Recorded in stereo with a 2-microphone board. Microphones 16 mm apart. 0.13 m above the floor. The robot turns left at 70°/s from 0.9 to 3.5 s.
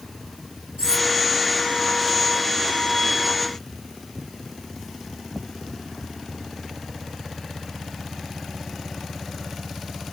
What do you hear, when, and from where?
0.8 s cutlery clinking: 60° right (ahead or behind), 1.9 m; by 1.1 s 55° right (ahead or behind), 1.9 m